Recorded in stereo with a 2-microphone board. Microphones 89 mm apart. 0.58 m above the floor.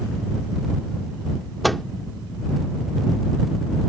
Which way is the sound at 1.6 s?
Centre (ahead or behind).